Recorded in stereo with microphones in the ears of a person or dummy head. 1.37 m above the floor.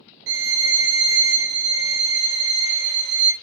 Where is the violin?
65° right (ahead or behind), 0.8 m.